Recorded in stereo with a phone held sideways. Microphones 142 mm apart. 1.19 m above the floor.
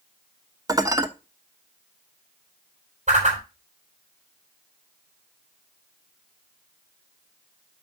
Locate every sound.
0.7 s dishes clattering: 25° right (ahead or behind), 0.8 m
3.1 s a whoosh: 60° right (ahead or behind), 3.5 m